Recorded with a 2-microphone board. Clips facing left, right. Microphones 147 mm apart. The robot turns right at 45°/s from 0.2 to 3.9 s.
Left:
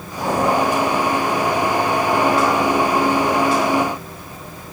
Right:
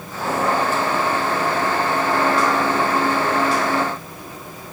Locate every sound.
Only background noise.